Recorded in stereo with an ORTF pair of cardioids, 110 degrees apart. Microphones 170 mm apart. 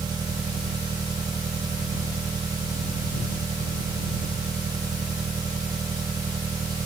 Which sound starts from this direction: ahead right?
An engine running, at 0.0 s.